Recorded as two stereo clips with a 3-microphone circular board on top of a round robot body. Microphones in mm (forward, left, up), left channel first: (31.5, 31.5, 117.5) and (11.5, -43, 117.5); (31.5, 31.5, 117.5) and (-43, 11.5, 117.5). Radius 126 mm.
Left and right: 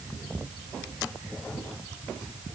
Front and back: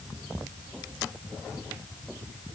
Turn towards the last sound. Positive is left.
No sound to turn to.